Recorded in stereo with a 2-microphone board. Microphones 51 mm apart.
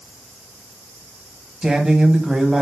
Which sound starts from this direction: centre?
A woman speaking, at 1.6 s.